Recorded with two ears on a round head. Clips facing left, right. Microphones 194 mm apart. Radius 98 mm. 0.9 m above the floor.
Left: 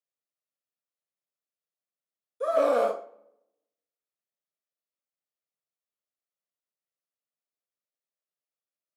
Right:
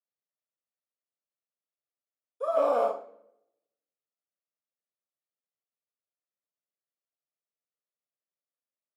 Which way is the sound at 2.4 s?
25° left (ahead or behind).